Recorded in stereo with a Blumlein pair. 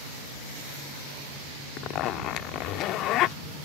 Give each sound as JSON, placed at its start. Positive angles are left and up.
{"t": 1.8, "sound": "a zipper", "azimuth_deg": 35}